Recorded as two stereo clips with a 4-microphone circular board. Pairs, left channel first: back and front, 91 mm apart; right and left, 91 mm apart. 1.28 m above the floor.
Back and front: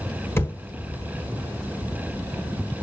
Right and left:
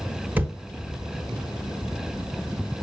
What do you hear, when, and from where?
0.4 s a thud: 145° left, 1.1 m